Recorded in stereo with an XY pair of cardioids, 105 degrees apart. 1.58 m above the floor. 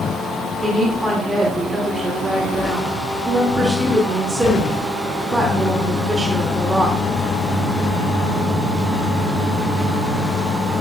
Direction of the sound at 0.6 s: 20° right.